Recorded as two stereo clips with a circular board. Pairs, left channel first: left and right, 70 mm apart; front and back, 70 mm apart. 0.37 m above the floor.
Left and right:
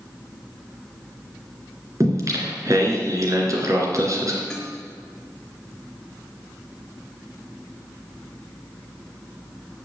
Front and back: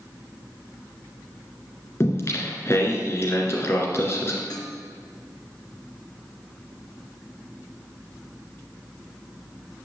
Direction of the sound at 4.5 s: 5° left.